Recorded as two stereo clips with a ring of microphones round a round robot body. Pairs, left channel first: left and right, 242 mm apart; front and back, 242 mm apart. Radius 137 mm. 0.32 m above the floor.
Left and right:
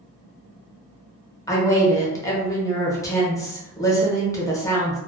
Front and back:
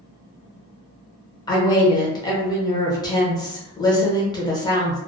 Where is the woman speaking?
40° left, 0.8 m.